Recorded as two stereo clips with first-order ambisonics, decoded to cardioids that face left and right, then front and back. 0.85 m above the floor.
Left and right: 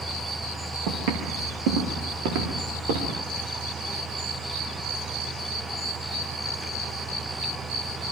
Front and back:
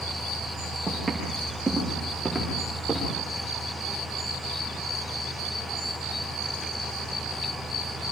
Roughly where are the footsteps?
Right.